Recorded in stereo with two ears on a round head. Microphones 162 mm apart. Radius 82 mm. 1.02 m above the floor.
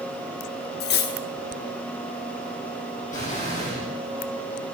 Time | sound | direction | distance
0.8 | cutlery clinking | 55° left (ahead or behind) | 0.9 m
3.1 | an explosion | 45° left (ahead or behind) | 7 m